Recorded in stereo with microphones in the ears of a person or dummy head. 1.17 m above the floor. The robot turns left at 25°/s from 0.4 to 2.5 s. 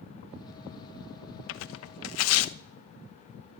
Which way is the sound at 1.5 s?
65° left (ahead or behind).